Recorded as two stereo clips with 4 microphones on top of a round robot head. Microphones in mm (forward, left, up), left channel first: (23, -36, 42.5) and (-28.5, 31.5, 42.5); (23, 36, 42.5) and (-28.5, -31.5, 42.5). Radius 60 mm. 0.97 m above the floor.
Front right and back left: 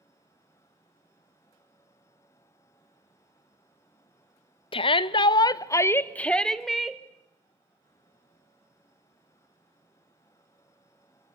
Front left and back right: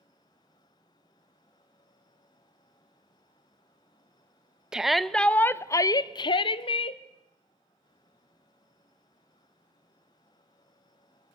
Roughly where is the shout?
Ahead right.